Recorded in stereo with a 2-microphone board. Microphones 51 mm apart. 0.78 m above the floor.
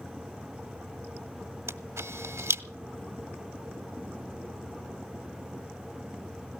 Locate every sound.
1.7 s a camera shutter: 65° right (ahead or behind), 1.0 m